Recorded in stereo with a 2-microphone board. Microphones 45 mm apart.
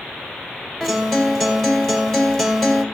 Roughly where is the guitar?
Centre.